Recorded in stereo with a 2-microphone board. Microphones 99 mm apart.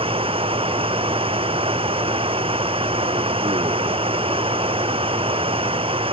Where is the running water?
75° right (ahead or behind).